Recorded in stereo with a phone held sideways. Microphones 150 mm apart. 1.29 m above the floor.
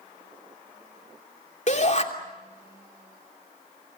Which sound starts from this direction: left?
A shout, at 1.7 s.